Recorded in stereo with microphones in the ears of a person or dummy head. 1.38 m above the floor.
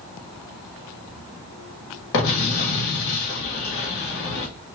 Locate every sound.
2.1 s an explosion: 65° left (ahead or behind), 1.3 m